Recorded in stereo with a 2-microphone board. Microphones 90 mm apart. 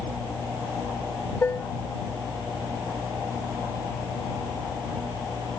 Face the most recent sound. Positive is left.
turn(degrees=25)  # may be behind; listen again after turning